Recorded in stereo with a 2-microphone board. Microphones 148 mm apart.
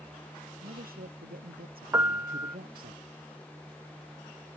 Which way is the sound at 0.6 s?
85° right.